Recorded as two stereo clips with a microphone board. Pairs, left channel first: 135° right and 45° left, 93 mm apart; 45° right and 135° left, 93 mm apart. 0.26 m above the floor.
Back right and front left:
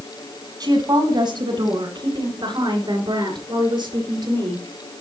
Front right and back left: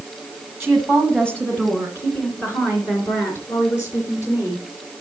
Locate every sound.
0.6 s a woman speaking: 45° left, 1.6 m; by 4.6 s 10° left, 4 m